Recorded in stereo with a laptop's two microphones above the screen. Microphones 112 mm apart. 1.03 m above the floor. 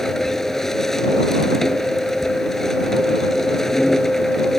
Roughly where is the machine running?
Centre.